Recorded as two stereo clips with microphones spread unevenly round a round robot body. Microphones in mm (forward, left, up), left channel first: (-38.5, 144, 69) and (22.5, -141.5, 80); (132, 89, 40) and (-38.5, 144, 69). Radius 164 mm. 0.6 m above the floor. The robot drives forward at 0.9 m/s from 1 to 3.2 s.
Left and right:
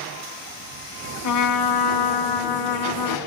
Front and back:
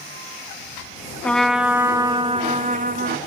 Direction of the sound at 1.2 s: 70° left.